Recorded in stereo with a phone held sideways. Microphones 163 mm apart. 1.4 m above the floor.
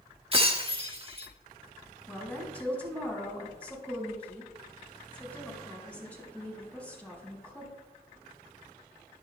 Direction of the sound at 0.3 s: 35° right (ahead or behind).